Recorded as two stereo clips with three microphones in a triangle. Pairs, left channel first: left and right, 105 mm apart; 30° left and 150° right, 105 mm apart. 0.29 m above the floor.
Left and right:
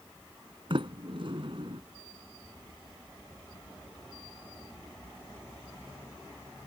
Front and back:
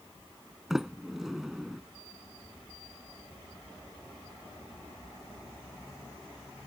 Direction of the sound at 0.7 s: 65° right.